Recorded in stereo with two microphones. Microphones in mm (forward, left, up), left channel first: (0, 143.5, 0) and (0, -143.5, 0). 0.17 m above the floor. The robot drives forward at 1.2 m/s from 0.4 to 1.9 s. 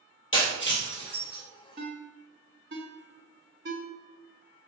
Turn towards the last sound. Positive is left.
turn(degrees=-40)  # may be behind; listen again after turning